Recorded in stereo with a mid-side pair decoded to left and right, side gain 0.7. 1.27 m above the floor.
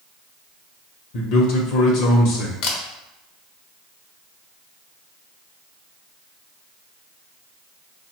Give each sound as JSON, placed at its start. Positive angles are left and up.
{"t": 1.1, "sound": "a man speaking", "azimuth_deg": 65, "distance_m": 0.7}
{"t": 2.6, "sound": "a camera shutter", "azimuth_deg": 65, "distance_m": 0.7}